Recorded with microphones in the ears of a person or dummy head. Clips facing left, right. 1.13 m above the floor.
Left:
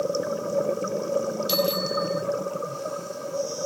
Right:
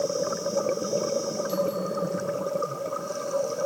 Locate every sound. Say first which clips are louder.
1.5 s a bicycle bell: left 2 dB; 85° left